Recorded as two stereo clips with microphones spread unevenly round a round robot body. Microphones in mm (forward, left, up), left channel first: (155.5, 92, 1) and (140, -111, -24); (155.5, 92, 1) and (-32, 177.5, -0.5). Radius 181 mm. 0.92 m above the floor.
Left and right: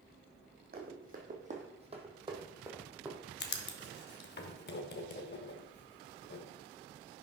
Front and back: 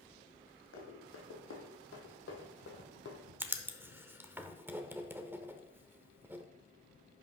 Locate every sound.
0.7 s running footsteps: 50° right, 2.5 m; by 3.2 s straight ahead, 1.9 m
3.4 s writing: 75° left, 0.9 m